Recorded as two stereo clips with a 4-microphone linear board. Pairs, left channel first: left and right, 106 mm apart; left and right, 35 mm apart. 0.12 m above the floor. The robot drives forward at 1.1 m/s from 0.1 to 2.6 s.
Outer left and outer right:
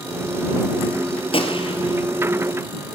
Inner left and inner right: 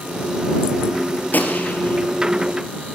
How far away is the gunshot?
About 2.5 m.